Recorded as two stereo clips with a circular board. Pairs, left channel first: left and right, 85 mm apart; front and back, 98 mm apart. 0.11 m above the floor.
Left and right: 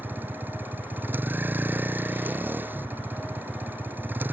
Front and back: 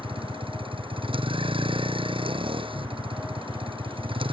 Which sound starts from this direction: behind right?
A vehicle, at 0.0 s.